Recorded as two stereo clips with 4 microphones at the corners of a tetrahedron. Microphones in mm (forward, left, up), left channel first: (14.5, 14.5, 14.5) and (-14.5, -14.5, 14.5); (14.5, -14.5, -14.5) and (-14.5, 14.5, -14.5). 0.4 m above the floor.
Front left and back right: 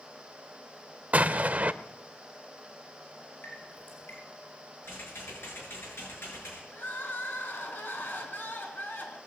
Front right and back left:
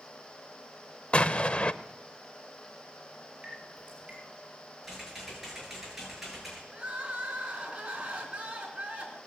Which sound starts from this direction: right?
An explosion, at 1.1 s.